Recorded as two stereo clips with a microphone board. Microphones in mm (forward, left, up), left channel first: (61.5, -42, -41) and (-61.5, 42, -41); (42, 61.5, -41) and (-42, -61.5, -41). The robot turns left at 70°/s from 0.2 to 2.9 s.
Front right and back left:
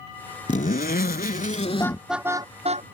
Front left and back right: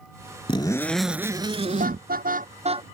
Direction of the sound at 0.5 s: 5° left.